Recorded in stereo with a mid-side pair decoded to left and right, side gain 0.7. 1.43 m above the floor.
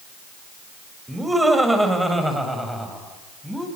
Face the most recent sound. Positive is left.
turn(degrees=-5)